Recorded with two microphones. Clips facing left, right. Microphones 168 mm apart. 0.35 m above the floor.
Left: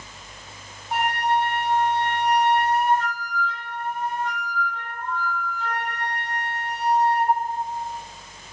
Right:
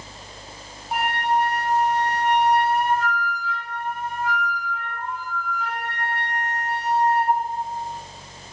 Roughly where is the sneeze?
No sneeze in this recording.